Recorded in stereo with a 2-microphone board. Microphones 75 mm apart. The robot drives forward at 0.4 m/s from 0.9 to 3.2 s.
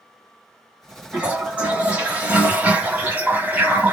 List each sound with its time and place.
1.1 s a toilet flushing: 15° right (ahead or behind), 1.4 m; by 3.9 s 20° right (ahead or behind), 1.0 m